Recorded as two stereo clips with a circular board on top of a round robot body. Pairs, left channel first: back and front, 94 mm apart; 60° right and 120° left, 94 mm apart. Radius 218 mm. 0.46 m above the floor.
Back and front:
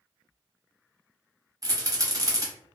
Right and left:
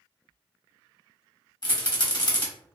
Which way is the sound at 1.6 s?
40° right.